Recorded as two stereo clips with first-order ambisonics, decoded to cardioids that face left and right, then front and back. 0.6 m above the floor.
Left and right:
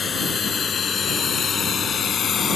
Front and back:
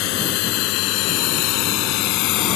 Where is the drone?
20° left; by 2.6 s 25° left.